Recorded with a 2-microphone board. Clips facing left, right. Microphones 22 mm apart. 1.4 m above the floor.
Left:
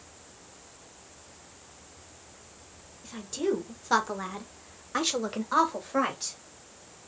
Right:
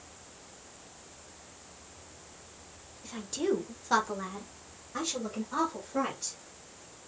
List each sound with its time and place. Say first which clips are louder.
3.0 s a woman speaking: left 1 dB; 5° right (ahead or behind), 1.6 m; by 6.4 s 80° left, 1.8 m